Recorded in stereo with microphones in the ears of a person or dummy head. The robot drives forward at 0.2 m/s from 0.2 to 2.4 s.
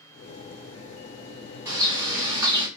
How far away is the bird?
About 1.3 m.